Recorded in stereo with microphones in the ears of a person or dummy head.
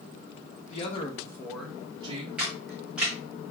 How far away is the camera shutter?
About 1.1 m.